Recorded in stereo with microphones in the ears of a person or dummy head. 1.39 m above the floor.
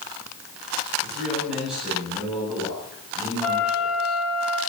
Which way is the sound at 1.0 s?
Centre (ahead or behind).